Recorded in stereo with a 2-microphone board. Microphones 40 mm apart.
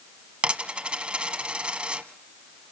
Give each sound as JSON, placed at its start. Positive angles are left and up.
{"t": 0.4, "sound": "a dropped coin", "side_deg": -30, "distance_m": 1.2}